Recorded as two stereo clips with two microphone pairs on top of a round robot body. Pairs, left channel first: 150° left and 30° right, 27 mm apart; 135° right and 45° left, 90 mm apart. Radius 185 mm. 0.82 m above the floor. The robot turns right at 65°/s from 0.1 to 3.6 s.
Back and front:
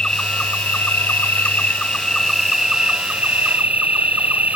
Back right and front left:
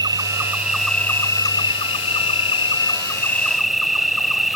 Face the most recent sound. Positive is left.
turn(degrees=-45)